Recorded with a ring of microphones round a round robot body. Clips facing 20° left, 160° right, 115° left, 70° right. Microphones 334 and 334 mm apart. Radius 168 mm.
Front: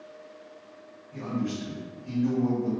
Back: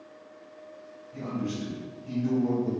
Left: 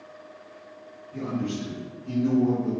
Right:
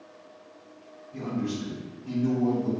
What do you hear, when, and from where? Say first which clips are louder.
1.1 s a man speaking: front 1 dB, left 1 dB; 5° left, 1.4 m